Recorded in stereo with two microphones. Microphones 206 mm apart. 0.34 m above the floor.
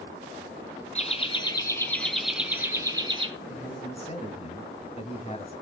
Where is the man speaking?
30° left (ahead or behind), 2.5 m.